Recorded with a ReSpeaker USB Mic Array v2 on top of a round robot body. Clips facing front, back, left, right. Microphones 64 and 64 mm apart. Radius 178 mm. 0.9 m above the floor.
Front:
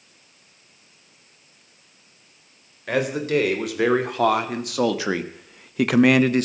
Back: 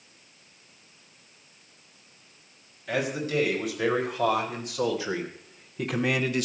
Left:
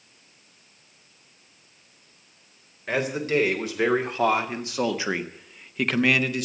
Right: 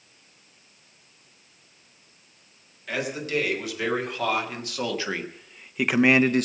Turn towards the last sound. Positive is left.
turn(degrees=-55)